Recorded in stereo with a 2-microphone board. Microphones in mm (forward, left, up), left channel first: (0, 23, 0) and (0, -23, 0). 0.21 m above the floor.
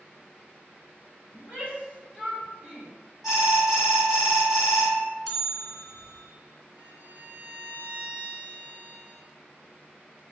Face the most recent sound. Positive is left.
turn(degrees=-50)  # may be behind; listen again after turning